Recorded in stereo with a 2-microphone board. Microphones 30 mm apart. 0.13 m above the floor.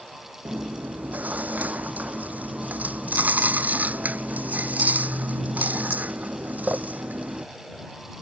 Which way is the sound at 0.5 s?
55° right (ahead or behind).